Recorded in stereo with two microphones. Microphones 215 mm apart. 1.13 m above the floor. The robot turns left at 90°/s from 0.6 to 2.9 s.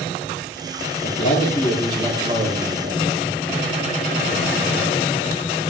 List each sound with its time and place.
1.0 s a man speaking: 80° left, 2 m; by 3.3 s 90° right, 2 m